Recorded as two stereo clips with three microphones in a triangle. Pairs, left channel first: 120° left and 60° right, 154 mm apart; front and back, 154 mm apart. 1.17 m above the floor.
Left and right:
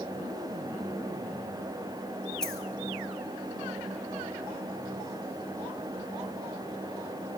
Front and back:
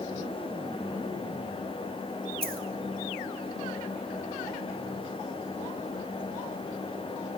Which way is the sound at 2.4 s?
155° right.